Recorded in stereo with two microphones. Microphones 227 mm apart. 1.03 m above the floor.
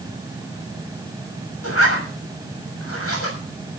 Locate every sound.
1.6 s a zipper: 80° left, 6.5 m